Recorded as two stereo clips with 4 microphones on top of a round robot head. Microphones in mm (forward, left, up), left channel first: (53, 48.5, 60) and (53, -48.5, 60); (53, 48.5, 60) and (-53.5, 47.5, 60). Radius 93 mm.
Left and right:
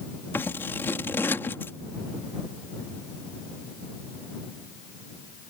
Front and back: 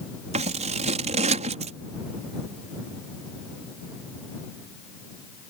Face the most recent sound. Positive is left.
turn(degrees=165)